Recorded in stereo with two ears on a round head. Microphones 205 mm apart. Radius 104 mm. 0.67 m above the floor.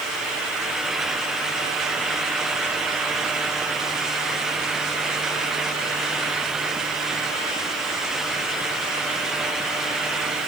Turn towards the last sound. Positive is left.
No sound to turn to.